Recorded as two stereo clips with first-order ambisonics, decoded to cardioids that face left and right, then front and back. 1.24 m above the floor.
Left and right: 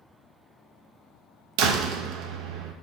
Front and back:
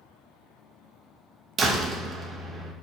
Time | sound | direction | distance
1.6 | a door slam | 115° right | 0.8 m